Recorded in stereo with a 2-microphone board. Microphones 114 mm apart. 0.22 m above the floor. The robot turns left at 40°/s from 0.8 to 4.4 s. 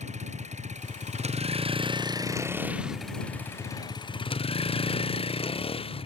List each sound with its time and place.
0.0 s a vehicle: 90° right; by 6.1 s 125° left